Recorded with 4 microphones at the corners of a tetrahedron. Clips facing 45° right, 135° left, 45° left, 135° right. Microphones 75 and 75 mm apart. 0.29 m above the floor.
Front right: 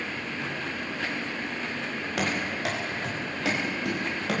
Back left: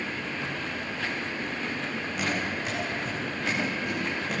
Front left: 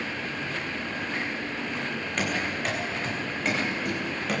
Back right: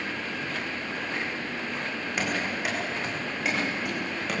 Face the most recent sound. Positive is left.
turn(degrees=-45)